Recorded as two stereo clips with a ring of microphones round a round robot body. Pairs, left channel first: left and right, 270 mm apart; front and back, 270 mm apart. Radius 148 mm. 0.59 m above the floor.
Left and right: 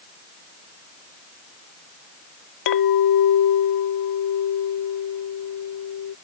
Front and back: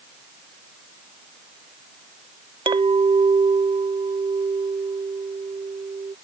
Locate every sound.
2.7 s a clink: 105° left